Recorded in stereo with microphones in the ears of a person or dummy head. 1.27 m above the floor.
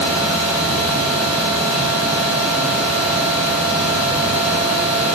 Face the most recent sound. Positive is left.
turn(degrees=-5)  # may be behind; listen again after turning